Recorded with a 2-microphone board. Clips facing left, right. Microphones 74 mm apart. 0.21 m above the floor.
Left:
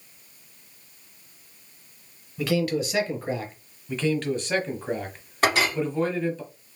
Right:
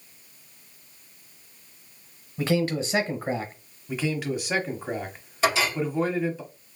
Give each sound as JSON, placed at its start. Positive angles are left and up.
{"t": 2.4, "sound": "a man speaking", "side_deg": -30, "distance_m": 1.1}
{"t": 3.9, "sound": "a man speaking", "side_deg": -10, "distance_m": 1.0}
{"t": 5.4, "sound": "a clink", "side_deg": 60, "distance_m": 2.5}